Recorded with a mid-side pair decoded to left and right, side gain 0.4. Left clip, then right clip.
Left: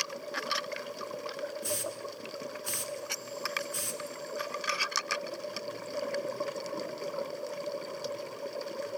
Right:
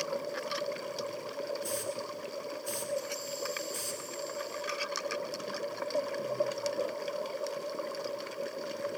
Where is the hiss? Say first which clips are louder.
Even; 70° left, 8.5 m.